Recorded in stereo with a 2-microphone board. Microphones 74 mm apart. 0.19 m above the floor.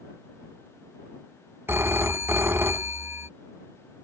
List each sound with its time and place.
1.7 s a phone ringing: 35° right (ahead or behind)